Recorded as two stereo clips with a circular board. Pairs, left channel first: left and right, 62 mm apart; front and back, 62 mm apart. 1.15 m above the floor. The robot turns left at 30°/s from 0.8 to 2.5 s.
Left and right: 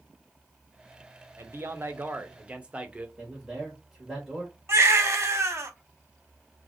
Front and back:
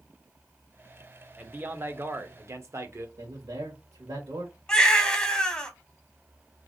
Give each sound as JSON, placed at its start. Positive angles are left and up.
{"t": 1.4, "sound": "a man speaking", "azimuth_deg": -120, "distance_m": 0.7}
{"t": 3.2, "sound": "a man speaking", "azimuth_deg": -175, "distance_m": 1.3}
{"t": 4.7, "sound": "a baby crying", "azimuth_deg": -70, "distance_m": 0.8}